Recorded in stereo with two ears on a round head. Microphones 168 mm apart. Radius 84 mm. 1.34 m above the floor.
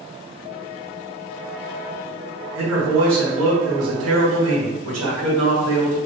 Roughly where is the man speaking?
Right.